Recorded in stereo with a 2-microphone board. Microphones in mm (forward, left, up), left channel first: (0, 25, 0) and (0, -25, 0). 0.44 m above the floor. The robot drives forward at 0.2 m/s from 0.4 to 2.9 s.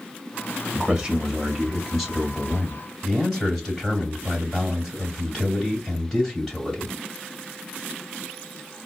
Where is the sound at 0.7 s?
10° right (ahead or behind), 1.7 m; by 2.8 s 5° right (ahead or behind), 2 m.